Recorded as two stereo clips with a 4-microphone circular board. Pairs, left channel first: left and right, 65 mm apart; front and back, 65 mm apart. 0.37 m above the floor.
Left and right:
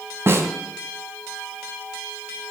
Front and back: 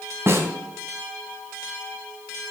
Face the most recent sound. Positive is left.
turn(degrees=-135)